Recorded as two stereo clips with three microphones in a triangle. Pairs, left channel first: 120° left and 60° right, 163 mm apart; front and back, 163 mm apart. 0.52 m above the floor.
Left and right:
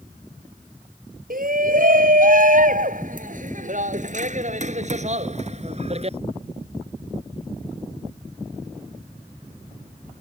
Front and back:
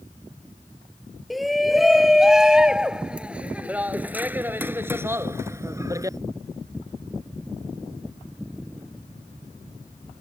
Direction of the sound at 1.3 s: 90° right.